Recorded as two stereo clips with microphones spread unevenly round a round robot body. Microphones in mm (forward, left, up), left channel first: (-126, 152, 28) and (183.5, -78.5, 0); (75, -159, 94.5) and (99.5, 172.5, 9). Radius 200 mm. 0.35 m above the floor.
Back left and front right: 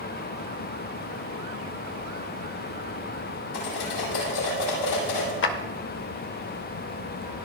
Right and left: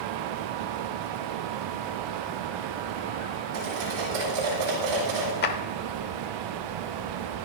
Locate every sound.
3.5 s cutlery clinking: 120° left, 8.5 m
5.4 s a clap: 160° right, 1.0 m